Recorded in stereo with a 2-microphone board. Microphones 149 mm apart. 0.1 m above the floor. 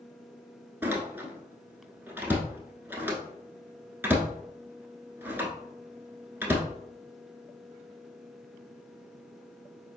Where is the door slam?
15° right (ahead or behind), 0.8 m.